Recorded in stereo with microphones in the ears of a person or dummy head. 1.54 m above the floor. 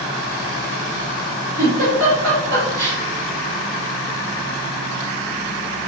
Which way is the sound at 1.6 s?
70° right (ahead or behind).